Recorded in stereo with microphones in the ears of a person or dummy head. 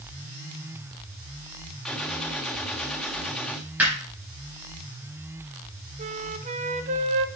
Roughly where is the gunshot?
Centre.